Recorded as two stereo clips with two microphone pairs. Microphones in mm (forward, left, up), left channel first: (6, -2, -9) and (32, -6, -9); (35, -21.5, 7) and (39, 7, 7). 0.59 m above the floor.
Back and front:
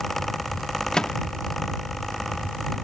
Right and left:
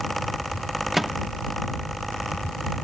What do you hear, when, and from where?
0.9 s a microwave: 160° left